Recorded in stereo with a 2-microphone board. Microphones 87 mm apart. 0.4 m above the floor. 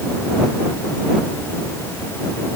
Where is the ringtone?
I don't hear a ringtone.